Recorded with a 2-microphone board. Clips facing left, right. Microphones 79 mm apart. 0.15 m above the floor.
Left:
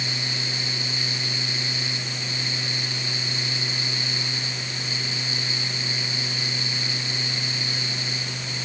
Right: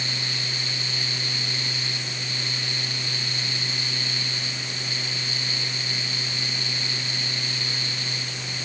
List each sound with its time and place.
Only background noise.